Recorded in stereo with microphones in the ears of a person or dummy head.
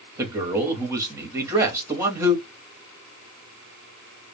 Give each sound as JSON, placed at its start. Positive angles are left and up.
{"t": 0.2, "sound": "a man speaking", "side_deg": -10, "distance_m": 1.1}